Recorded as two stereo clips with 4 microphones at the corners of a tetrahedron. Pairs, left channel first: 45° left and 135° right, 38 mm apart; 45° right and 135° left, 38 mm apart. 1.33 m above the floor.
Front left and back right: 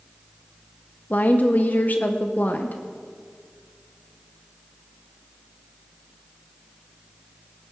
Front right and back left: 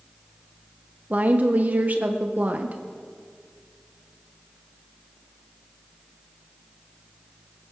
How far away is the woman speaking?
About 0.7 m.